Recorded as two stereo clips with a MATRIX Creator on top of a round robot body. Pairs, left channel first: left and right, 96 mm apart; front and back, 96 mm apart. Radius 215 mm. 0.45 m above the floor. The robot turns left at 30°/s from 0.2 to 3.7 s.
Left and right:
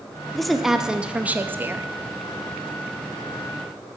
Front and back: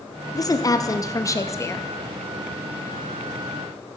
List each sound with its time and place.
0.3 s a woman speaking: 5° left, 0.8 m; by 1.9 s 45° right, 0.8 m